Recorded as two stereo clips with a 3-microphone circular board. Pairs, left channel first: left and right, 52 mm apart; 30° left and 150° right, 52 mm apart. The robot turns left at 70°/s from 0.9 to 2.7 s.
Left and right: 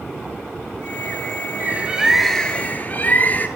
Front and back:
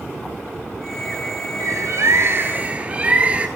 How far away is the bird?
About 1.0 m.